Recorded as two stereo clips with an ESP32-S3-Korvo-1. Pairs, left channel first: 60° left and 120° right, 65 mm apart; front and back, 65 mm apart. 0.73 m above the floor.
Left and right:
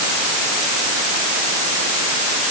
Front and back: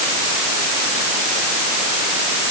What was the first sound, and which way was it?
Only background noise.